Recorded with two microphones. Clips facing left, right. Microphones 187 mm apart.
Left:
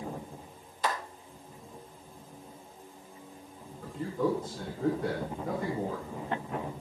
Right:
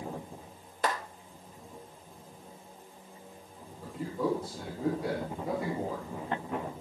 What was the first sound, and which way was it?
A clap, 60° right (ahead or behind).